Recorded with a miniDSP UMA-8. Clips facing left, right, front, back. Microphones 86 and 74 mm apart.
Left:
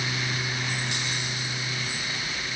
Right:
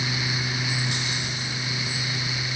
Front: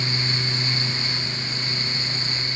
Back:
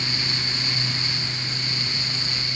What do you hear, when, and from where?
Only background noise.